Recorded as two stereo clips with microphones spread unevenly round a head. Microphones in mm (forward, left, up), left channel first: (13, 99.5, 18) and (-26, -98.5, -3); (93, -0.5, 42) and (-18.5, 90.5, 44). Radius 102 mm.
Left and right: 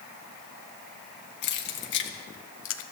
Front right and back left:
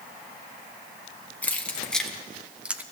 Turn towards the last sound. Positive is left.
turn(degrees=65)